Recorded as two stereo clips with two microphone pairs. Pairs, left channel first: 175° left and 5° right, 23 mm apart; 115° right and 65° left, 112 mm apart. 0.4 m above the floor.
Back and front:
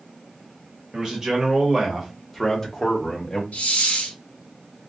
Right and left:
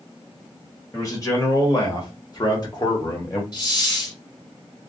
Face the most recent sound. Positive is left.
turn(degrees=-165)